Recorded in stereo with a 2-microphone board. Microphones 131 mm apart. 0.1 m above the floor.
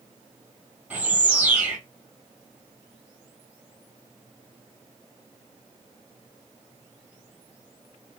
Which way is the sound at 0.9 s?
10° right (ahead or behind).